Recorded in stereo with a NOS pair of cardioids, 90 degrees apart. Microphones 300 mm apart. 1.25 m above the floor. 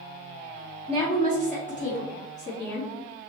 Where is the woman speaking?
10° left, 1.0 m; by 2.9 s 35° left, 1.8 m.